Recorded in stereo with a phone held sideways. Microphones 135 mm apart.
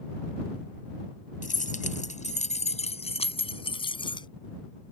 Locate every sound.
1.4 s keys jangling: 75° left (ahead or behind); by 4.3 s 35° left (ahead or behind)